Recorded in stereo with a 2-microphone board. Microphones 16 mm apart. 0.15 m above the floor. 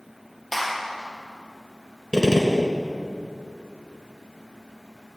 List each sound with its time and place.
0.5 s a clap: 15° left (ahead or behind), 3 m
2.1 s a gunshot: 45° left (ahead or behind), 1.8 m